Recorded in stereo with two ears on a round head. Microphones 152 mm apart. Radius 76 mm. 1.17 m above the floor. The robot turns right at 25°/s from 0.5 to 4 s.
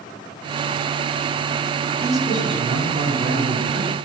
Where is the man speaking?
165° right, 7 m; by 4.0 s 115° right, 7 m.